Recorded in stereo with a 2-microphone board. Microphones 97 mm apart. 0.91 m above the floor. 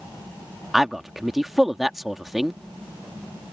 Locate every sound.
0.7 s a man speaking: centre (ahead or behind)